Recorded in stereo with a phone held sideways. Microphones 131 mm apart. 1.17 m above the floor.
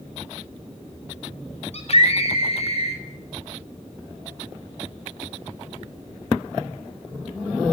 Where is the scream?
55° left (ahead or behind), 6.5 m.